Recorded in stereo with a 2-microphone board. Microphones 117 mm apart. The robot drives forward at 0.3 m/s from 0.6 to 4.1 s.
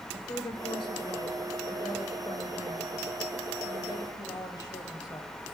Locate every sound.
0.1 s a woman speaking: 45° left (ahead or behind), 1.6 m; by 5.3 s 35° left (ahead or behind), 2 m